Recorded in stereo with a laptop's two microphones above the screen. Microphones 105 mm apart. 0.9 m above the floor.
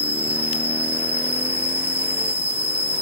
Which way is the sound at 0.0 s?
65° right (ahead or behind).